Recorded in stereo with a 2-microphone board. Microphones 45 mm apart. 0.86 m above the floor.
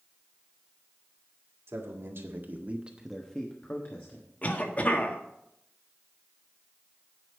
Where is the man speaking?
70° right (ahead or behind), 2 m; by 4.3 s 55° left (ahead or behind), 2 m.